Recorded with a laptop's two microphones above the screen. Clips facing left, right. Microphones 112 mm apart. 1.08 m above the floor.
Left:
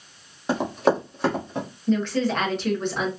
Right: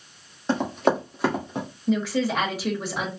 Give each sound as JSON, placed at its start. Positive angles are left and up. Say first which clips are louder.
{"t": 0.5, "sound": "running footsteps", "louder": "left 1 dB", "side_deg": 10, "distance_m": 1.5}
{"t": 1.9, "sound": "a woman speaking", "louder": "left 1 dB", "side_deg": -10, "distance_m": 1.1}